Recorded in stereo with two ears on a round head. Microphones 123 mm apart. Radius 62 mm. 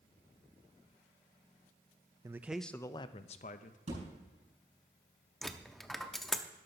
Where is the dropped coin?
Centre (ahead or behind), 0.6 m.